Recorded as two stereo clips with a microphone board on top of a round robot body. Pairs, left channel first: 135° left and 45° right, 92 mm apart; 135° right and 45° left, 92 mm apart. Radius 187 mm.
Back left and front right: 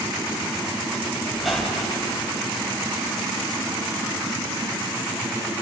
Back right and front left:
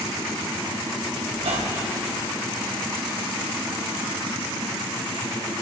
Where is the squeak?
45° left, 3 m.